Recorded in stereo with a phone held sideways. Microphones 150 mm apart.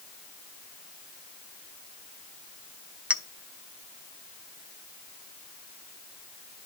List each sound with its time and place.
3.1 s a clink: 10° right (ahead or behind), 0.5 m